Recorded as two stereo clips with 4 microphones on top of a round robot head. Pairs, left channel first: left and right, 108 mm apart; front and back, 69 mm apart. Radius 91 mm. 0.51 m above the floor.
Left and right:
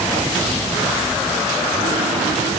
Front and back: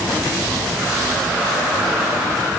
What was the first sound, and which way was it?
Only background noise.